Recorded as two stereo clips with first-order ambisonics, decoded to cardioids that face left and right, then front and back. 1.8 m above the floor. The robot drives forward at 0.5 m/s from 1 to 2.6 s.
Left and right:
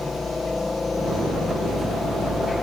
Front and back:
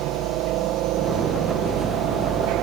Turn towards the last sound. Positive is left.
turn(degrees=165)